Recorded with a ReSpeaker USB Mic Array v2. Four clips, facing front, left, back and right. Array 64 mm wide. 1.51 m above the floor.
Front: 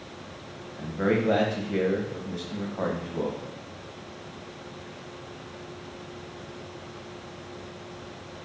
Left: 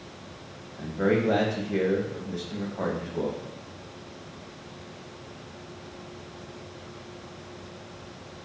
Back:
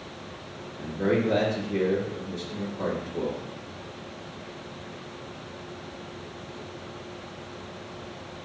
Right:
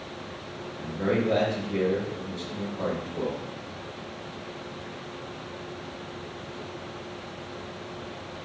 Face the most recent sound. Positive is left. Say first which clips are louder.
# left 2 dB, even
turn(degrees=25)